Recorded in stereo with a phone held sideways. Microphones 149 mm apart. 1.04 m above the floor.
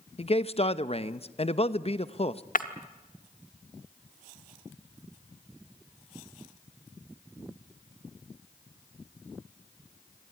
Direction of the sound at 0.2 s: 40° left (ahead or behind).